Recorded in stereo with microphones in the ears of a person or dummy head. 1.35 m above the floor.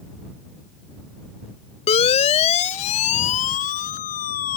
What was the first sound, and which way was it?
A siren, 35° left (ahead or behind).